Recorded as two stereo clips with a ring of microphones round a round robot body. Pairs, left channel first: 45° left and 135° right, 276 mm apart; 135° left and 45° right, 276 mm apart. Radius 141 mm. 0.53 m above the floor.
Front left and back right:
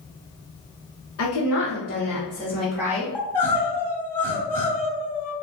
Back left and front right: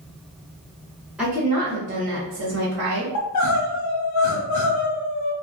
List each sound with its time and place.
1.2 s a woman speaking: 40° left, 1.2 m; by 3.0 s 60° right, 1.3 m
3.1 s crying: 130° left, 1.0 m